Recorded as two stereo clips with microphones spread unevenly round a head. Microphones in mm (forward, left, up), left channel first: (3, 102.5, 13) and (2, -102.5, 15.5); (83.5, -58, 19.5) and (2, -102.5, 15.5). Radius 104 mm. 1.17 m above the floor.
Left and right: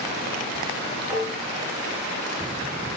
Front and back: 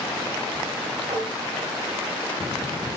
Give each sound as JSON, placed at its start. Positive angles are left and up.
{"t": 1.1, "sound": "dishes clattering", "azimuth_deg": -105, "distance_m": 6.0}